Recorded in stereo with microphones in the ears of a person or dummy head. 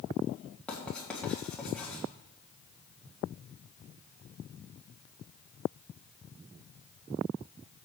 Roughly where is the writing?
Centre.